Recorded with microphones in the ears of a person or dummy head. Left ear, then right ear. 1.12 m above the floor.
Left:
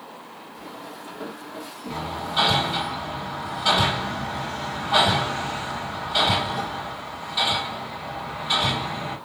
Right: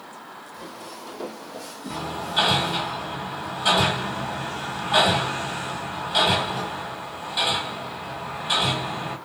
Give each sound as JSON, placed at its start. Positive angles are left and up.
{"t": 0.5, "sound": "footsteps", "side_deg": -55, "distance_m": 2.0}
{"t": 1.9, "sound": "hammering", "side_deg": -20, "distance_m": 1.7}